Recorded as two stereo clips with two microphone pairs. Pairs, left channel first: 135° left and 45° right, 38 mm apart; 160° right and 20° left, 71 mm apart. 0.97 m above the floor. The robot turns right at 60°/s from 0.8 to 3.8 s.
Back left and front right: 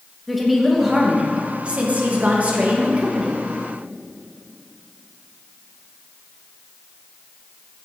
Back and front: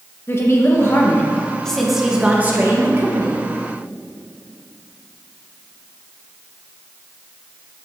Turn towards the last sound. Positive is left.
turn(degrees=45)